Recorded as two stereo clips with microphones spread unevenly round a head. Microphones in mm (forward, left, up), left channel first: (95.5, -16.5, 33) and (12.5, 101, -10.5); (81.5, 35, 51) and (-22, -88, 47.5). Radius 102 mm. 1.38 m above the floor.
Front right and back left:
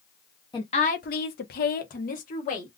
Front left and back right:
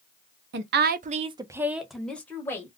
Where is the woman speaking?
120° right, 0.6 m; by 2.7 s 25° right, 1.1 m.